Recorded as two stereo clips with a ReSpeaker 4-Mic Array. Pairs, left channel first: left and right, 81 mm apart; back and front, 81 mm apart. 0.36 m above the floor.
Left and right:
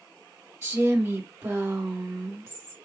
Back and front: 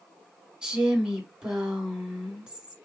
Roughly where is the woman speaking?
Right.